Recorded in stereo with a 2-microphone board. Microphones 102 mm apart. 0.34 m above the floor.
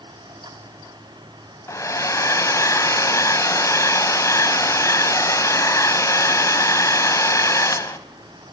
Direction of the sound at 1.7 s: 30° left (ahead or behind).